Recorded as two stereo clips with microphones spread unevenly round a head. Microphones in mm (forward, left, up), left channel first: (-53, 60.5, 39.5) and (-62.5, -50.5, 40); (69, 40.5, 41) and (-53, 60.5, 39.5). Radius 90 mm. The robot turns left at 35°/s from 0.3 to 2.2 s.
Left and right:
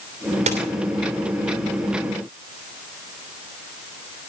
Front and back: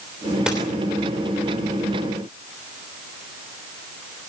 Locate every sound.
0.5 s a dropped coin: 105° right, 3 m; by 0.6 s 110° right, 3 m